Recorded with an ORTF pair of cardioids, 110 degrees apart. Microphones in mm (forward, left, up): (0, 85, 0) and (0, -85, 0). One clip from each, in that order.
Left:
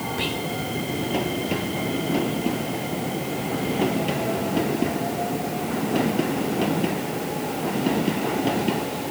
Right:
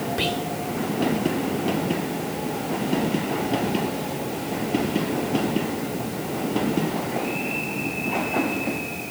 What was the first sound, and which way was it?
Whispering, 25° right.